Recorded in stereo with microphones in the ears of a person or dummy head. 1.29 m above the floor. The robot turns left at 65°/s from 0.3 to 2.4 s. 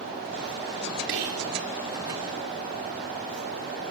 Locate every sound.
1.1 s whispering: 75° right (ahead or behind), 4 m; by 1.5 s 80° right, 4 m